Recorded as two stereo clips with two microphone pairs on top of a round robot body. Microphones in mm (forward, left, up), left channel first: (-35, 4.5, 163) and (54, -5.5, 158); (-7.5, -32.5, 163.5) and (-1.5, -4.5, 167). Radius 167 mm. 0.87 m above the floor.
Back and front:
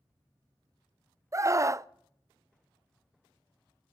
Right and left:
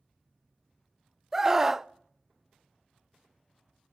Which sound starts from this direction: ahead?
A scream, at 1.3 s.